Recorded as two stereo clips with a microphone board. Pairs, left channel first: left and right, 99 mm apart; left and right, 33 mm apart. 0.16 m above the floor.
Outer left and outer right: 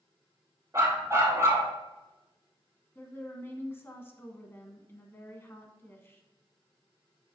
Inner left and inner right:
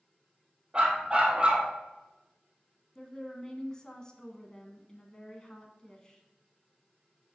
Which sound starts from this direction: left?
A woman speaking, at 3.0 s.